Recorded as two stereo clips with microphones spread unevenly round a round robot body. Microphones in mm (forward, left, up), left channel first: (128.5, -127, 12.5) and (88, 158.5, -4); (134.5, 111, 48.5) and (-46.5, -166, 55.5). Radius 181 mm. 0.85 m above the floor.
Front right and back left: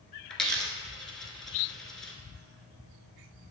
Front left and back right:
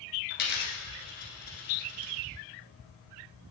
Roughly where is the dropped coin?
Ahead.